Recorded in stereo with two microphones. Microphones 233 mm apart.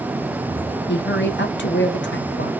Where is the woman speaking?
50° left (ahead or behind), 1.1 m.